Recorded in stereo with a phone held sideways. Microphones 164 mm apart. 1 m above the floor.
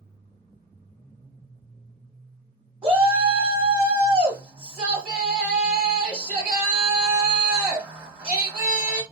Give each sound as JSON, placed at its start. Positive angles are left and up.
{"t": 2.8, "sound": "a shout", "side_deg": -5, "distance_m": 1.1}